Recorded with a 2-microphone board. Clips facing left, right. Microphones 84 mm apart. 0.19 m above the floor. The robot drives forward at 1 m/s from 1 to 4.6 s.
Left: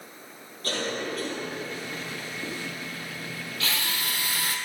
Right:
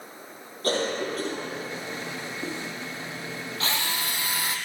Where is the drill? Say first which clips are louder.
Right 1 dB; 35° right (ahead or behind), 2.5 m; by 4.6 s 25° right (ahead or behind), 3.5 m.